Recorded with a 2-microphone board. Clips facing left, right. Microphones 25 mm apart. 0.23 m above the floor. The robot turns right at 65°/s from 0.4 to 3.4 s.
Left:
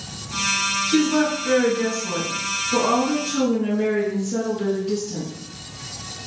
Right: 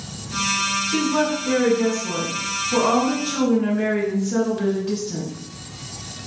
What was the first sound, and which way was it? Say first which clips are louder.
A woman speaking: left 4 dB; 90° left.